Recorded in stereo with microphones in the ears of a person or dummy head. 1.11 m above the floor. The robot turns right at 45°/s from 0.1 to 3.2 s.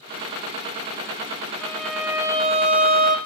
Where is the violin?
170° left, 0.7 m; by 3.2 s 120° right, 0.7 m.